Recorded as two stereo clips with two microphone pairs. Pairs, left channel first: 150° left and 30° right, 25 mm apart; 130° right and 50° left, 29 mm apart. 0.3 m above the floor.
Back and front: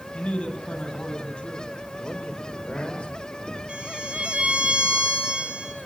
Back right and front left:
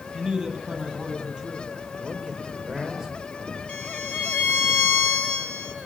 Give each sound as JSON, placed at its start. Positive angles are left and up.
{"t": 0.1, "sound": "a man speaking", "azimuth_deg": 120, "distance_m": 9.0}
{"t": 2.0, "sound": "a man speaking", "azimuth_deg": 125, "distance_m": 6.0}
{"t": 3.7, "sound": "a violin", "azimuth_deg": -85, "distance_m": 5.0}